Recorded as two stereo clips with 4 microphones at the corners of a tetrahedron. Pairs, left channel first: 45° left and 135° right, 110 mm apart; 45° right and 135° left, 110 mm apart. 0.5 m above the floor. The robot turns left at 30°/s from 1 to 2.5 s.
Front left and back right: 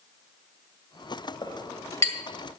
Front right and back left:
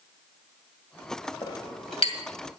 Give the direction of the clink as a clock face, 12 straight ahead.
12 o'clock.